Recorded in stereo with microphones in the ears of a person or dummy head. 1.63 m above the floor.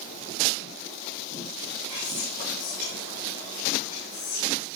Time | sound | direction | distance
1.9 | whispering | 40° left (ahead or behind) | 4.5 m